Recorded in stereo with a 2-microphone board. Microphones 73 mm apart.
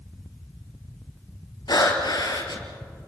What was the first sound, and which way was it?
Breathing, 80° left.